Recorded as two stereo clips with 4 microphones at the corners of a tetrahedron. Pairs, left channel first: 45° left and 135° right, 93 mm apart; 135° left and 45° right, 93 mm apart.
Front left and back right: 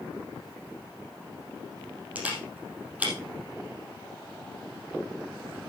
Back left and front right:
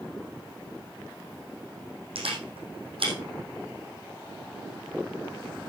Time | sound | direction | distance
2.1 | a camera shutter | 60° right | 4 m